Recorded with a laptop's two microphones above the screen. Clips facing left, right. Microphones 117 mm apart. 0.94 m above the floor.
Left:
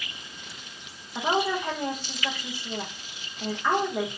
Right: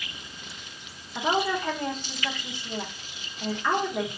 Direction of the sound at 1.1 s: 10° left (ahead or behind).